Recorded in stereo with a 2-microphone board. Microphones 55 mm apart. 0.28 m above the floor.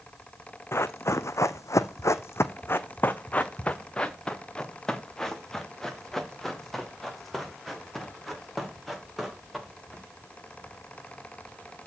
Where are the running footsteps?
50° left (ahead or behind), 1.0 m; by 10.0 s centre (ahead or behind), 4.5 m.